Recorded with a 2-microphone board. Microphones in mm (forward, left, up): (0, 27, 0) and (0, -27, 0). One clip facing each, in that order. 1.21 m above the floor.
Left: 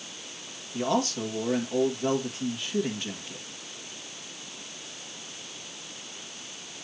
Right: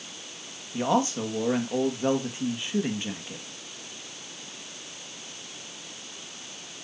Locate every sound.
0.7 s a man speaking: 20° right (ahead or behind), 2 m